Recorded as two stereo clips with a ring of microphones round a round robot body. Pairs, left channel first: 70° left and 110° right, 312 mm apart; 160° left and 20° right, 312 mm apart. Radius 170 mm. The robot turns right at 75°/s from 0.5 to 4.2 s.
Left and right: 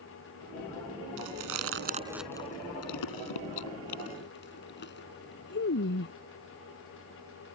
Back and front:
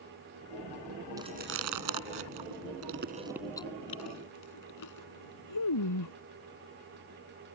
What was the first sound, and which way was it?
Chewing, 100° right.